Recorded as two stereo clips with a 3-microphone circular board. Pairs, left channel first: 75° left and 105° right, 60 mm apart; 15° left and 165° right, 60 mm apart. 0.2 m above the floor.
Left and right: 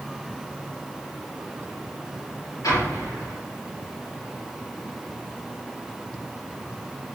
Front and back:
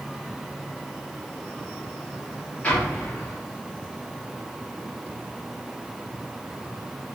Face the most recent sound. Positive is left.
turn(degrees=80)